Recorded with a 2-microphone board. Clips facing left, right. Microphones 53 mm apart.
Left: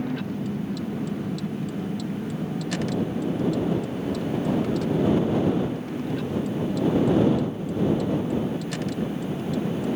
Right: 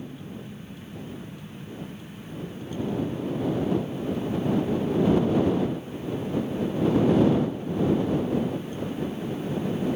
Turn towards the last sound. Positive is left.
turn(degrees=85)